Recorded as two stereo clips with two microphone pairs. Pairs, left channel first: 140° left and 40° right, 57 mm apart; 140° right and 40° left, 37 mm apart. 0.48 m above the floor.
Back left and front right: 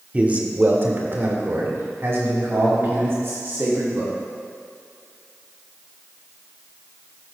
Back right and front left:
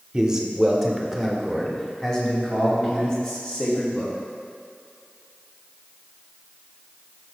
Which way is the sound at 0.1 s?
10° right.